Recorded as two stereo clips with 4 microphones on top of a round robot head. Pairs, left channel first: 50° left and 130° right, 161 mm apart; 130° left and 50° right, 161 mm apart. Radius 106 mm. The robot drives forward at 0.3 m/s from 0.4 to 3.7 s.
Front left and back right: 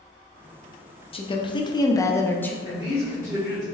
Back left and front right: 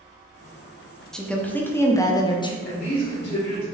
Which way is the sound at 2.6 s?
160° left.